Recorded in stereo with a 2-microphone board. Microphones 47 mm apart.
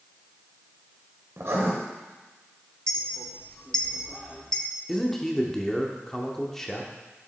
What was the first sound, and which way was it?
Writing, 65° right (ahead or behind).